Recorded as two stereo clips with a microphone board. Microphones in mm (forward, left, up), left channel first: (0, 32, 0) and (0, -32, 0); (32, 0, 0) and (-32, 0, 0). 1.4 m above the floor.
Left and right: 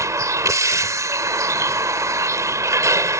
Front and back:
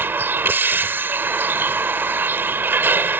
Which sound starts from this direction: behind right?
A vehicle, at 0.0 s.